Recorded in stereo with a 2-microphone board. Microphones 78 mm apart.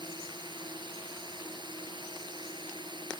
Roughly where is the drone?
Right.